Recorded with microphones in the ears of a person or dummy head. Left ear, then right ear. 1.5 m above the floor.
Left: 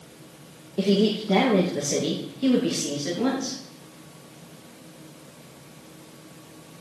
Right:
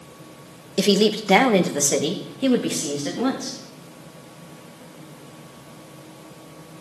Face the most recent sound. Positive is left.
turn(degrees=-15)  # may be behind; listen again after turning